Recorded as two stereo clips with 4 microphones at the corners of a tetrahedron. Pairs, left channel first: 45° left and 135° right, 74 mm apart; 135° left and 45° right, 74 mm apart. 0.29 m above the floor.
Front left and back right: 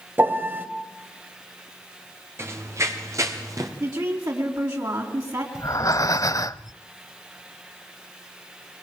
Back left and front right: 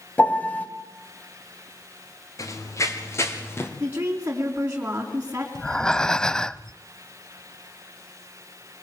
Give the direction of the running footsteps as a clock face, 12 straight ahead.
6 o'clock.